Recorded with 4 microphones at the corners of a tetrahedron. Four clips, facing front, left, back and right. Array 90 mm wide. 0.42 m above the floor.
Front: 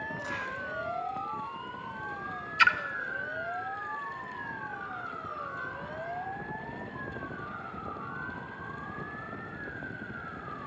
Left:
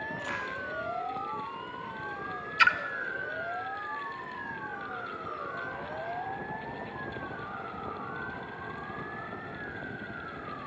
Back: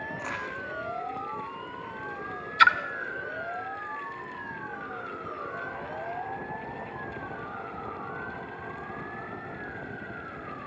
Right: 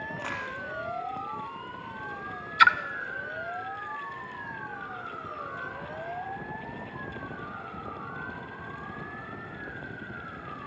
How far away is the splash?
About 0.8 m.